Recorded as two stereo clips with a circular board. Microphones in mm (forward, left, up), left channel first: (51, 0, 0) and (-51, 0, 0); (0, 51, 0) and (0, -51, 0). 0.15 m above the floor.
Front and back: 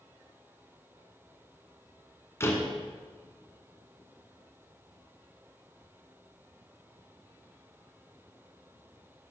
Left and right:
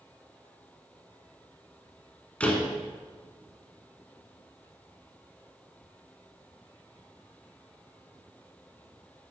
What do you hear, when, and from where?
2.4 s a door slam: 25° left, 1.3 m